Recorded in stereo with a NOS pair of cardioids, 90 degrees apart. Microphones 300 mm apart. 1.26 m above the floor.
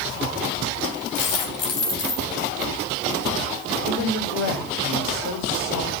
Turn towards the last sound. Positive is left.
turn(degrees=60)